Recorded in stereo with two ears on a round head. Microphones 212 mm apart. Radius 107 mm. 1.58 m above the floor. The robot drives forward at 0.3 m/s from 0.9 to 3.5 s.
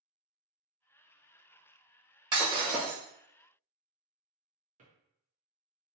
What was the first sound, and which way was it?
Breaking glass, 20° right (ahead or behind).